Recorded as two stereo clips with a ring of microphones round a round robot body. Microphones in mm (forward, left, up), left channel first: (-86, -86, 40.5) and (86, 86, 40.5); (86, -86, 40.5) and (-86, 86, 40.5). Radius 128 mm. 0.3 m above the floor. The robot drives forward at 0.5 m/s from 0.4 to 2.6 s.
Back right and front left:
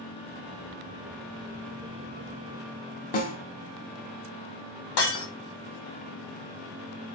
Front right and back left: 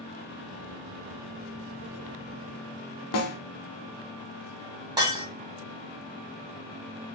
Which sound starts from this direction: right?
A snare drum, at 3.1 s.